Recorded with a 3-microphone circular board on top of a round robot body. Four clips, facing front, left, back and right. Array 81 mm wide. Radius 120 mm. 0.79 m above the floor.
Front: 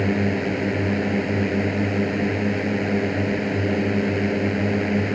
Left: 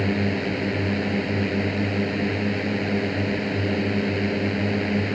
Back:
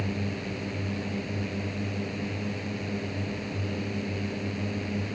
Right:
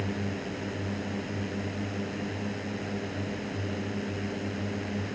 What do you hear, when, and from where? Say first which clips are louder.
0.0 s a drone: left 9 dB, front 11 dB; 20° left